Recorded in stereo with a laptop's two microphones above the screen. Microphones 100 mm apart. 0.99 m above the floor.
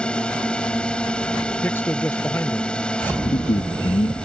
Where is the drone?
10° left (ahead or behind).